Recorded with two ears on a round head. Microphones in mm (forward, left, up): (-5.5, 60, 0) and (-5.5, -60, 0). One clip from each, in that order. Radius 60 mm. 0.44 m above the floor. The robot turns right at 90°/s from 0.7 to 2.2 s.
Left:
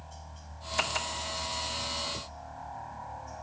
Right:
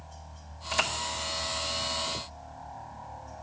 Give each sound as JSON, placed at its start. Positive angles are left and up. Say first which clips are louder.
{"t": 0.0, "sound": "a helicopter", "louder": "even", "azimuth_deg": 15}